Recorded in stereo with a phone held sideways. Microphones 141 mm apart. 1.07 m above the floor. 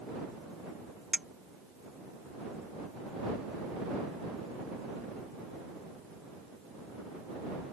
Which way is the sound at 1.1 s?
Centre (ahead or behind).